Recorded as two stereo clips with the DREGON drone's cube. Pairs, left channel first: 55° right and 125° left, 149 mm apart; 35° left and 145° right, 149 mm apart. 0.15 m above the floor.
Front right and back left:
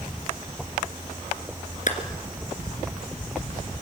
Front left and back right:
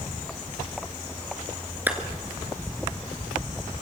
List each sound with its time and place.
1.9 s a clap: 70° right, 3 m